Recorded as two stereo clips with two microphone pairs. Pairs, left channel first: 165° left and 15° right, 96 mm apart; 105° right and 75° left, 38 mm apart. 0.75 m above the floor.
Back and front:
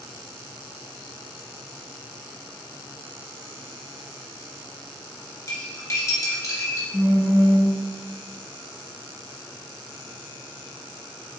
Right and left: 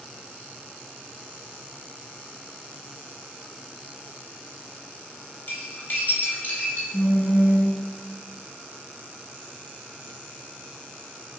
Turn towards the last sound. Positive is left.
turn(degrees=-120)